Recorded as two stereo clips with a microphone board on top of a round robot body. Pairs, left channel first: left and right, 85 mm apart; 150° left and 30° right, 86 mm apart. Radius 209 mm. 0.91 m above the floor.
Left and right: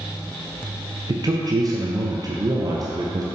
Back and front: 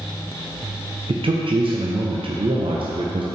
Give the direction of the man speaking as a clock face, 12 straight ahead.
1 o'clock.